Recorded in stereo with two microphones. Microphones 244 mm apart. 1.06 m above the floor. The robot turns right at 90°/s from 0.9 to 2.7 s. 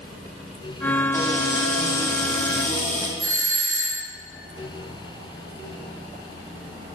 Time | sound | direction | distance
1.1 | a cupboard door | 10° left | 1.9 m
3.2 | a doorbell | 65° left (ahead or behind) | 4.5 m